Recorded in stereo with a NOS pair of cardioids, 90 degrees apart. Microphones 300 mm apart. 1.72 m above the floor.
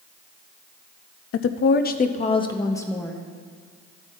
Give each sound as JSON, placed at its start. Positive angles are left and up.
{"t": 1.3, "sound": "a woman speaking", "azimuth_deg": 55, "distance_m": 0.7}